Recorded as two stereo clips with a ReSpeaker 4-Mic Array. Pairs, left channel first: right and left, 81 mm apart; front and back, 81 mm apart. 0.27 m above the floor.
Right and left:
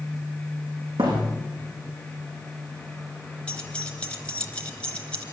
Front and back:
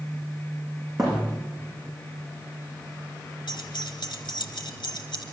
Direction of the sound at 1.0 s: 90° left.